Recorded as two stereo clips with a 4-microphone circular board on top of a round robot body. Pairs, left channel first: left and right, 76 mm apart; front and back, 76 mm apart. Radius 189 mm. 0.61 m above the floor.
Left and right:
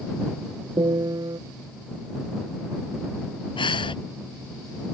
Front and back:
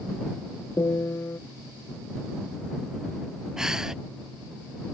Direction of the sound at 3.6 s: 95° left.